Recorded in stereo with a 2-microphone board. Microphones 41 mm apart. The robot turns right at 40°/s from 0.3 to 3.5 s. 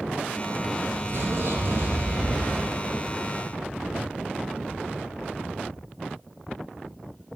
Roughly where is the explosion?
Behind right.